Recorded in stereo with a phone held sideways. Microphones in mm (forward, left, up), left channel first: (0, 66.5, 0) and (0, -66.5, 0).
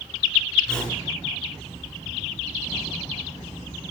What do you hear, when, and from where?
0.7 s a whoosh: 10° left (ahead or behind), 4 m